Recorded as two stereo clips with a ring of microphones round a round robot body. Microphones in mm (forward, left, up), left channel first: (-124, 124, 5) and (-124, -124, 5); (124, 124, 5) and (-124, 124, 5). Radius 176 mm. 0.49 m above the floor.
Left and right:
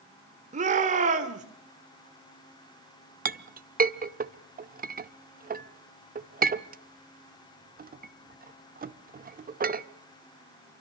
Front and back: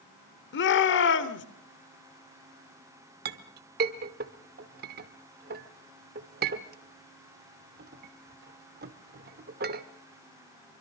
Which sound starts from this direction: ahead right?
A shout, at 0.5 s.